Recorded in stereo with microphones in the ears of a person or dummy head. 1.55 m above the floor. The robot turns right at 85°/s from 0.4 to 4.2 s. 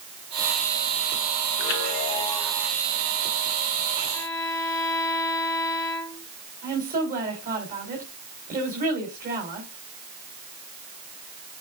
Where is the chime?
105° left, 0.8 m; by 2.7 s 165° right, 0.8 m.